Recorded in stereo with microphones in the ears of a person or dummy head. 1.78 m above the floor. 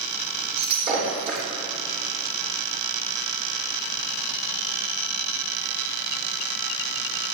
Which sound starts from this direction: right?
Breaking glass, at 0.6 s.